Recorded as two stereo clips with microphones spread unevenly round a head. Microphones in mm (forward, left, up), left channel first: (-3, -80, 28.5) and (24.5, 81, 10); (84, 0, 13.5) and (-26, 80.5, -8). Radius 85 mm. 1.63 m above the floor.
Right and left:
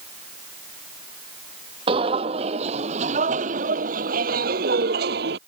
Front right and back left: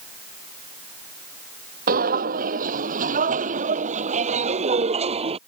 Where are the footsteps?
140° left; by 5.4 s 105° left.